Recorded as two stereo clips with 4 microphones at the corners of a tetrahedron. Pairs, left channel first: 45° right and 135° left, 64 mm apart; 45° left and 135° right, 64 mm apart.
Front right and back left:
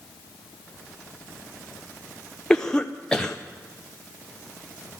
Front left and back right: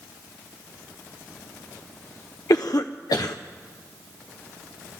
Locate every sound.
2.5 s a cough: 30° left, 0.7 m